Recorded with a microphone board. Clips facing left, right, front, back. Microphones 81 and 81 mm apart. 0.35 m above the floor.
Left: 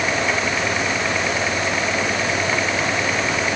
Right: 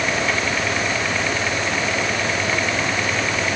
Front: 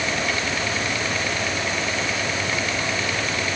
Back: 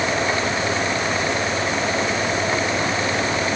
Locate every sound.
Only background noise.